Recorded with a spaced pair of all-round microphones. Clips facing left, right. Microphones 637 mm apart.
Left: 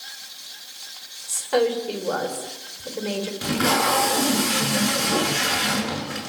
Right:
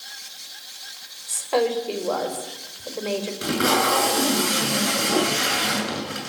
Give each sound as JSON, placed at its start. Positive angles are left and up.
{"t": 1.3, "sound": "a woman speaking", "side_deg": 40, "distance_m": 5.5}
{"t": 3.4, "sound": "tape being pulled", "side_deg": 20, "distance_m": 8.5}